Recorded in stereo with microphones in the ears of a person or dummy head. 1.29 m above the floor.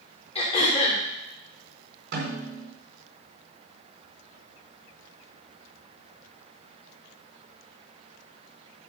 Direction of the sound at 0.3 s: 40° left (ahead or behind).